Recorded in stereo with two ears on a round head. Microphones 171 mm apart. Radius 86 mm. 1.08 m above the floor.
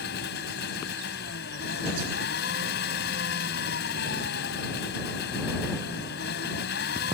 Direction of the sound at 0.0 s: 60° left (ahead or behind).